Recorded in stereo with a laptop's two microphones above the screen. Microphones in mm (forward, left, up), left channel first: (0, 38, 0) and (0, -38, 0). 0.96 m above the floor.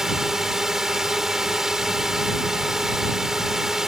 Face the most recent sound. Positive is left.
turn(degrees=-5)  # may be behind; listen again after turning